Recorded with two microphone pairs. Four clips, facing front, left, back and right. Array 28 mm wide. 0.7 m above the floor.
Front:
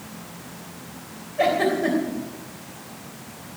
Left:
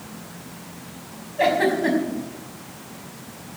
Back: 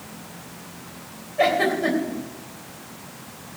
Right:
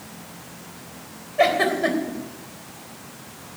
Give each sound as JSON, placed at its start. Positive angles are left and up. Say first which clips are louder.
{"t": 1.4, "sound": "a giggle", "louder": "even, back 1 dB", "azimuth_deg": -105, "distance_m": 3.5}